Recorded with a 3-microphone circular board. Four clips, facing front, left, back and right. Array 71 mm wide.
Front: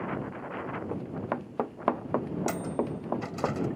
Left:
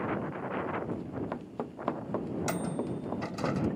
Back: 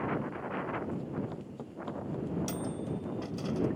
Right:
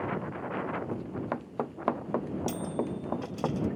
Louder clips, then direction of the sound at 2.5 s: Right 1 dB, front 5 dB; 55° left.